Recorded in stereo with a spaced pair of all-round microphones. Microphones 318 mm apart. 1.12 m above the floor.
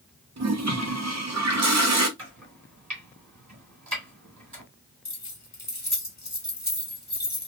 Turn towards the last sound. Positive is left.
turn(degrees=60)  # may be behind; listen again after turning